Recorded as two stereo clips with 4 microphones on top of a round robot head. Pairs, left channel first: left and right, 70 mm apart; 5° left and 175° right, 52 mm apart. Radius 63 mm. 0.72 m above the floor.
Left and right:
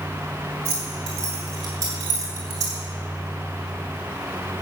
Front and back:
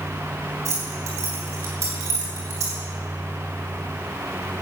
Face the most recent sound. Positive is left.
turn(degrees=-140)